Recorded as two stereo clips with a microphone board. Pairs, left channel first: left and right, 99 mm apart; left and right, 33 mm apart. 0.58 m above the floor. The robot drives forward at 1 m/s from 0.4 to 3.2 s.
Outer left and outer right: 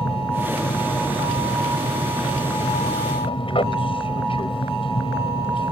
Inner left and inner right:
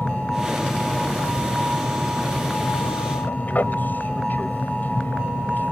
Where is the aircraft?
60° left (ahead or behind); by 5.7 s 55° left (ahead or behind).